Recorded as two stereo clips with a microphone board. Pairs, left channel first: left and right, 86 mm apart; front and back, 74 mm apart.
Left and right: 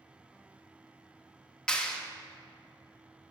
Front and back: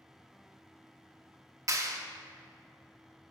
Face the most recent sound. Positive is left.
turn(degrees=165)